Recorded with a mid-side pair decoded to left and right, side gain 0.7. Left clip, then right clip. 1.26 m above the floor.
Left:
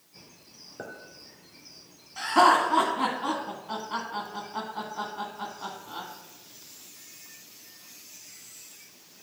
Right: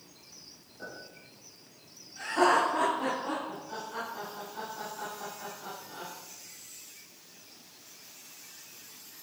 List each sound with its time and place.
0.8 s a clink: 70° left, 3.5 m
2.2 s laughter: 65° left, 1.9 m